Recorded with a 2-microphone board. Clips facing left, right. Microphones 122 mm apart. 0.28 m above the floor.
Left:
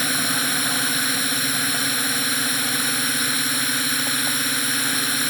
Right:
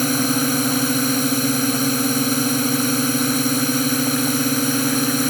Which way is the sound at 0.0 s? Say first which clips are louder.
Right 8 dB; 35° right (ahead or behind).